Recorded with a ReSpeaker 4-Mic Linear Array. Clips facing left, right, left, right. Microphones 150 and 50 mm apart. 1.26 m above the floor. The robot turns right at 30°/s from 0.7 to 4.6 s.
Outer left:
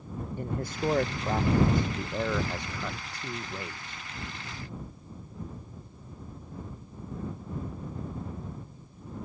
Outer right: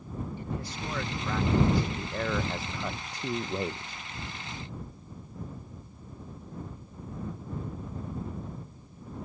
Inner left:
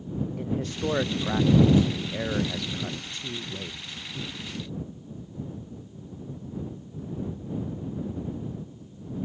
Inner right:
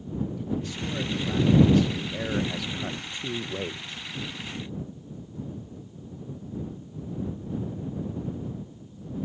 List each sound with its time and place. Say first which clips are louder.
0.4 s a man speaking: outer left 4 dB, inner left 2 dB; 125° left; by 4.0 s 135° right